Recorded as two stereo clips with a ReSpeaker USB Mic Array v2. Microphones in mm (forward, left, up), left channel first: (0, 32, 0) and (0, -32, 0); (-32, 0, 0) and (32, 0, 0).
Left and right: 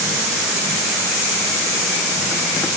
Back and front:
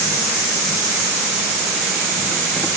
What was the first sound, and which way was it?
Only background noise.